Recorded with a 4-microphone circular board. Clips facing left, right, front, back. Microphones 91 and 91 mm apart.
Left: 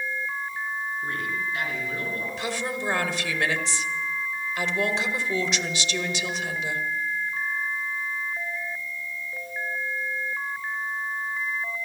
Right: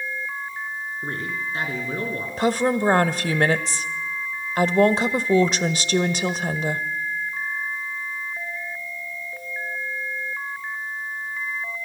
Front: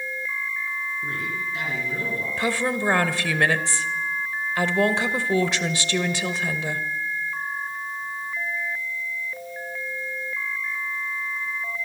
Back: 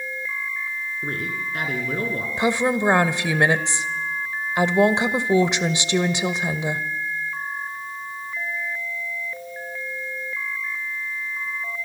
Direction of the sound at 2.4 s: 115° right.